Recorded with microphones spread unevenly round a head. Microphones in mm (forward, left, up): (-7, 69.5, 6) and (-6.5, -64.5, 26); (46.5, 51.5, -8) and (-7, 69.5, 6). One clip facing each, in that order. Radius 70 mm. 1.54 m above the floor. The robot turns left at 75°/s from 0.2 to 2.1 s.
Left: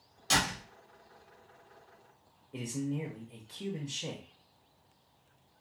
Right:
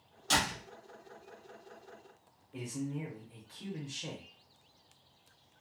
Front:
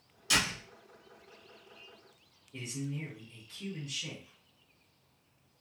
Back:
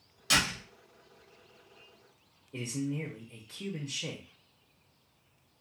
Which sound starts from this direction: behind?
A door slam, at 0.3 s.